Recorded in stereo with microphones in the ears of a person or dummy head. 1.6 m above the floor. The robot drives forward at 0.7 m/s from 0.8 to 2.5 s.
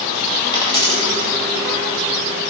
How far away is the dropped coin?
About 1.8 m.